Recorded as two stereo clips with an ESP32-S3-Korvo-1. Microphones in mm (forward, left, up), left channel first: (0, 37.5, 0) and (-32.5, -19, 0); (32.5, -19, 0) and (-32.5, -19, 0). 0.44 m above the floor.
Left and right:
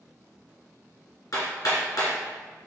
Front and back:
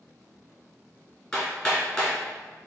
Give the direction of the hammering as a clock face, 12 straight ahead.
10 o'clock.